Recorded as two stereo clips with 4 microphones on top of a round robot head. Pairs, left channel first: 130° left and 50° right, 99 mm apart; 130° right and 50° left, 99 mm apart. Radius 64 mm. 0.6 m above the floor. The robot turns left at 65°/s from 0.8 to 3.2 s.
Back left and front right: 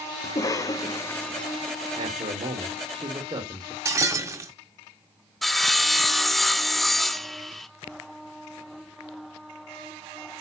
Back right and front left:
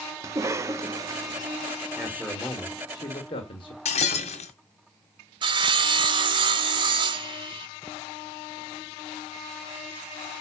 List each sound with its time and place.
0.2 s a cough: 95° left, 1.2 m; by 1.4 s 50° left, 1.2 m
2.0 s a man speaking: 15° right, 2 m; by 3.8 s 100° right, 2 m
3.9 s breaking glass: 110° right, 2 m
5.4 s sawing: 40° left, 1.0 m